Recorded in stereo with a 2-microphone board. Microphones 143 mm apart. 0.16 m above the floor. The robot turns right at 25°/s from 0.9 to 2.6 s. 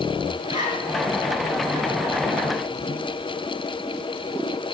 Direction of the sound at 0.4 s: 30° right (ahead or behind).